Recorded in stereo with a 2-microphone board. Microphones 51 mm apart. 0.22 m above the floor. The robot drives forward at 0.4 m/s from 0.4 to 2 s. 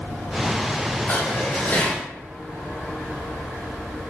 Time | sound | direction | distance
1.1 | dishes clattering | 50° left (ahead or behind) | 2 m